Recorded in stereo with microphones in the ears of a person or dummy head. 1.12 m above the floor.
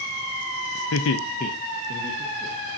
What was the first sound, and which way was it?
Laughter, 75° left (ahead or behind).